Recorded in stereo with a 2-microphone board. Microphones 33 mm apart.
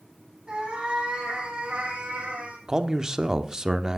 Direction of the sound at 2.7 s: 20° right (ahead or behind).